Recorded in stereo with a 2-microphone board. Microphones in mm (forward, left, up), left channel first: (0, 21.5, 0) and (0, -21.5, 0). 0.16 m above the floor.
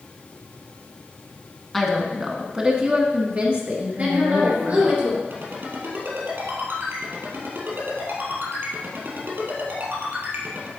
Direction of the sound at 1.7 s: Centre (ahead or behind).